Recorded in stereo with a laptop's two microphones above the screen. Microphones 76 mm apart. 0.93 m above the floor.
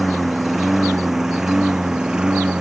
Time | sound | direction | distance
0.0 | a lawn mower | centre (ahead or behind) | ?